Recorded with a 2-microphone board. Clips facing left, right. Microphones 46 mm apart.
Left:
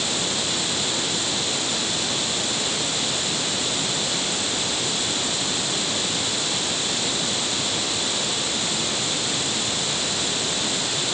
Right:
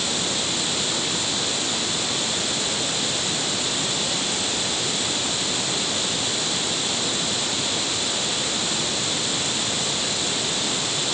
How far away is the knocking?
No knocking in this recording.